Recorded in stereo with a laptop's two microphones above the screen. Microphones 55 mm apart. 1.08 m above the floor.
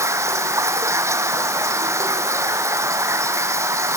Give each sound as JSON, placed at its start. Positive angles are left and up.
{"t": 0.0, "sound": "running water", "side_deg": -60}